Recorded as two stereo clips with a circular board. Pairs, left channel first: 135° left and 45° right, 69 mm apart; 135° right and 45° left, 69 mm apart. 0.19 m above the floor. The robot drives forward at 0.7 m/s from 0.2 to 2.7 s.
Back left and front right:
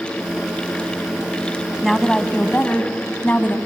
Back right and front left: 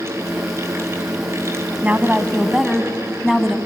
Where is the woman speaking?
50° left, 1.0 m; by 3.6 s 135° left, 1.1 m.